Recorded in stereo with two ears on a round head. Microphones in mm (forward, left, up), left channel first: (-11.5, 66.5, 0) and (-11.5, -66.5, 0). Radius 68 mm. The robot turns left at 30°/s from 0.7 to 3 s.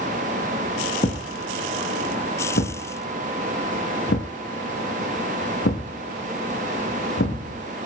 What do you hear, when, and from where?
1.0 s a thud: 45° left (ahead or behind), 5 m; by 7.7 s 75° left (ahead or behind), 5 m